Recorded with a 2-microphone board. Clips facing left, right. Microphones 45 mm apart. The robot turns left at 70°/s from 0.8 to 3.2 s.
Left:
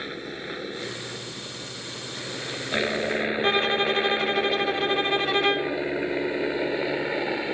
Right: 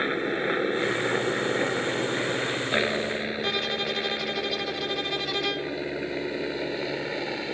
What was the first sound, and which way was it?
A helicopter, 35° right (ahead or behind).